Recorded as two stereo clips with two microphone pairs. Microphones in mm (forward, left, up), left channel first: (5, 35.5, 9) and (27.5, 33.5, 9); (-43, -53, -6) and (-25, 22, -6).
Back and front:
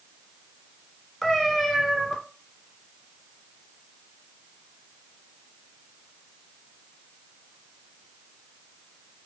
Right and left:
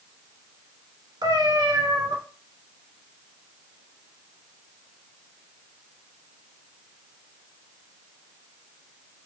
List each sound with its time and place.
1.2 s a cat meowing: 100° left, 1.6 m